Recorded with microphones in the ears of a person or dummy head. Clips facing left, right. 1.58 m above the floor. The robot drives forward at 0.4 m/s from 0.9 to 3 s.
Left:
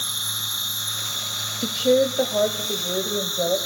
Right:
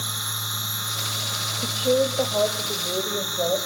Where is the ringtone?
I don't hear a ringtone.